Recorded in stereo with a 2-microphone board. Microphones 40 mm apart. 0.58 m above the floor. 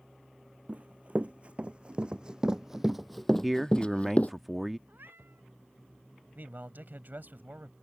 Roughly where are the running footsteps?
Right.